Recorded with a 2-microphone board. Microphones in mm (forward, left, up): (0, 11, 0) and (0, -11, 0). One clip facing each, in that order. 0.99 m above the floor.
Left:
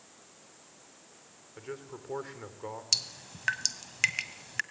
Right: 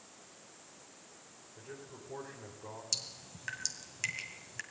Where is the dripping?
40° left (ahead or behind), 1.0 m.